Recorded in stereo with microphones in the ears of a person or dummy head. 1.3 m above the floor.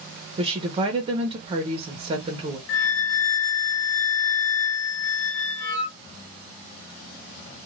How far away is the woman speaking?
About 0.8 m.